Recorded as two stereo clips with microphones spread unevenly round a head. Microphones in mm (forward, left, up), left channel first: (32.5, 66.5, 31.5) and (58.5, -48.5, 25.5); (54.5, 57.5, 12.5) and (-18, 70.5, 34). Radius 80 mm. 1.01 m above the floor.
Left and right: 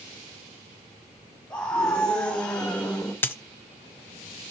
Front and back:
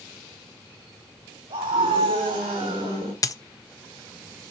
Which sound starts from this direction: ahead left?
A dropped coin, at 3.2 s.